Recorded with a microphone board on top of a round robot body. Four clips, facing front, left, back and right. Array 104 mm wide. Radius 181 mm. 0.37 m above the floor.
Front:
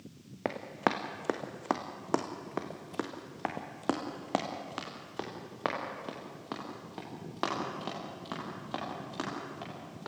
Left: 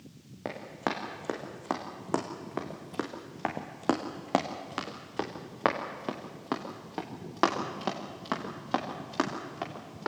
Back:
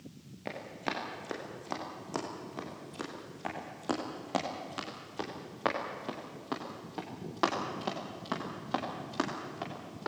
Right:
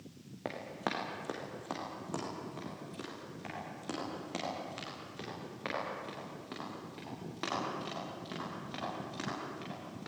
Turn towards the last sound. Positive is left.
turn(degrees=100)